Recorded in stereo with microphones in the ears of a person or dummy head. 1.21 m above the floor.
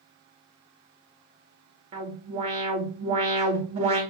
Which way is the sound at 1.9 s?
35° right (ahead or behind).